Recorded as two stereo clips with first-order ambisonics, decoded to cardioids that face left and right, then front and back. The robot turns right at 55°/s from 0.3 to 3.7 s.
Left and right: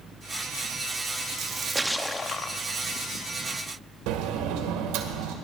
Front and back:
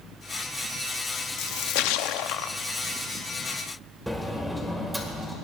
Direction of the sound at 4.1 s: 90° right.